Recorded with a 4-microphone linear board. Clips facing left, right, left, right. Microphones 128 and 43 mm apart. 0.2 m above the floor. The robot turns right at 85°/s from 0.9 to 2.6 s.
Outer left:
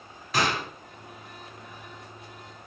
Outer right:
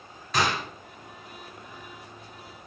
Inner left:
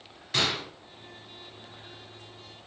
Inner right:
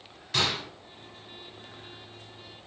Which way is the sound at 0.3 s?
5° left (ahead or behind).